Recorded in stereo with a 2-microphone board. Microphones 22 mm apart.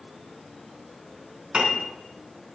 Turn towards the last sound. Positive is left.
turn(degrees=-40)  # may be behind; listen again after turning